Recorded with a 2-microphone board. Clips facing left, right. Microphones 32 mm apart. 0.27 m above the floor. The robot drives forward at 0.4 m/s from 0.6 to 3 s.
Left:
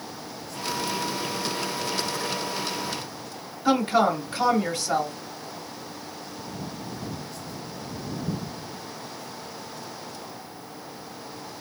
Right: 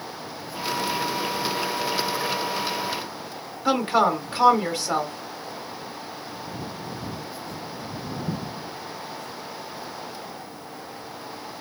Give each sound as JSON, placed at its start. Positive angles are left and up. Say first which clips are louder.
{"t": 3.6, "sound": "a woman speaking", "louder": "right 1 dB", "side_deg": -10, "distance_m": 0.9}